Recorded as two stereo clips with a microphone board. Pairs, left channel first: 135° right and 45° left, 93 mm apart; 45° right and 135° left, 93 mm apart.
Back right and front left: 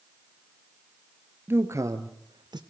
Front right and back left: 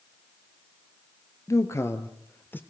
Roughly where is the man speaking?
Ahead.